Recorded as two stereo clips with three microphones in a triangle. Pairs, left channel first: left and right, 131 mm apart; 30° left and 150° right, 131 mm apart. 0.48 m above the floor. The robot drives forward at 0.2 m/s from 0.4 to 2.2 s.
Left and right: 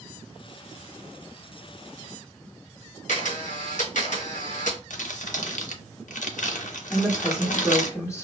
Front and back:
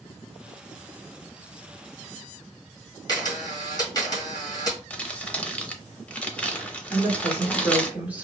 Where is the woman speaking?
140° left, 0.9 m.